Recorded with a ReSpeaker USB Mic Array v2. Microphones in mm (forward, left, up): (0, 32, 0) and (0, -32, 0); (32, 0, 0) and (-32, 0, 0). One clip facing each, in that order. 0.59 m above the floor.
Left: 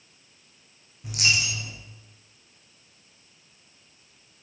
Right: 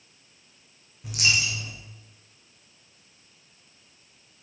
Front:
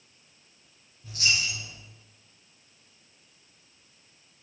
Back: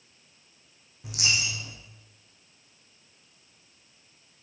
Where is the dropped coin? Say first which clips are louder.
Even, front 1 dB; straight behind, 4 m.